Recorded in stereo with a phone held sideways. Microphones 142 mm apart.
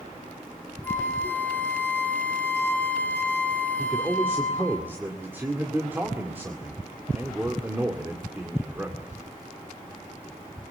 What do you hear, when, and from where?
0.8 s a flute: 15° left (ahead or behind), 2 m
3.8 s a man speaking: 15° right (ahead or behind), 2.5 m